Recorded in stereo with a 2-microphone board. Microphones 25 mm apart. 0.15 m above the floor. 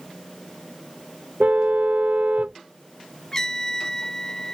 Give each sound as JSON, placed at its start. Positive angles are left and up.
{"t": 1.4, "sound": "a car horn", "side_deg": -80}
{"t": 3.3, "sound": "a trumpet", "side_deg": 20}